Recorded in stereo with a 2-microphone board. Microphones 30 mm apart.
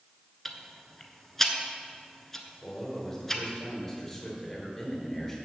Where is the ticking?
10° left (ahead or behind), 0.9 m.